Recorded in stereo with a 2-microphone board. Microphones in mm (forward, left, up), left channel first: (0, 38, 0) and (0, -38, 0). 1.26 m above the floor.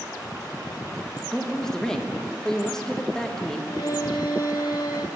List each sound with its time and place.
1.3 s a woman speaking: 10° left (ahead or behind), 1.3 m
3.7 s a violin: 65° left (ahead or behind), 1.2 m